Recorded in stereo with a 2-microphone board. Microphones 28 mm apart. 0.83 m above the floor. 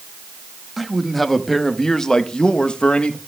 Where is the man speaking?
Centre (ahead or behind), 1.3 m; by 3.2 s 45° left (ahead or behind), 1.0 m.